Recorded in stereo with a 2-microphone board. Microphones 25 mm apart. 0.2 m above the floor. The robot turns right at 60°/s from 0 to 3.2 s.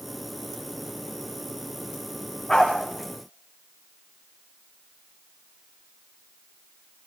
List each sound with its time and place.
2.5 s a dog barking: 25° left (ahead or behind), 8 m; by 2.7 s 10° left (ahead or behind), 8 m